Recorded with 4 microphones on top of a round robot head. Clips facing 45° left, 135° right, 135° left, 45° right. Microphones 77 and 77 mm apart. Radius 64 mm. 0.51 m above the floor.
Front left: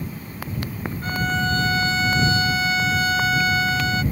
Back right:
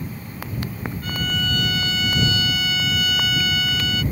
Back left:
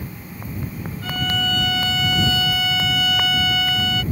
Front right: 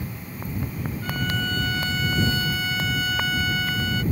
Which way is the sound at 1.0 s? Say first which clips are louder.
Front left 4 dB, back left 4 dB; 105° left.